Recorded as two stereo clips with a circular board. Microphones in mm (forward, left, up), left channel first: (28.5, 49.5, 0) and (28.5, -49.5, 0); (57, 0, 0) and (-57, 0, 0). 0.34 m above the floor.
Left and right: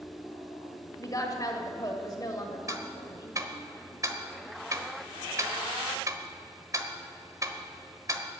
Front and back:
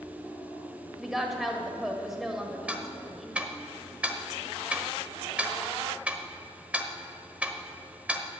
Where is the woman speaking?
95° left, 1.7 m.